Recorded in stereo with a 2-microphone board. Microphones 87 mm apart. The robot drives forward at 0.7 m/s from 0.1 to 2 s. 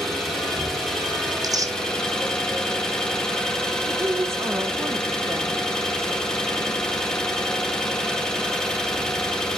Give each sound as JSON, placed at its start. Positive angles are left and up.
{"t": 0.0, "sound": "an engine running", "side_deg": 5, "distance_m": 3.0}
{"t": 1.3, "sound": "tearing paper", "side_deg": -45, "distance_m": 0.6}
{"t": 3.9, "sound": "a woman speaking", "side_deg": -30, "distance_m": 0.8}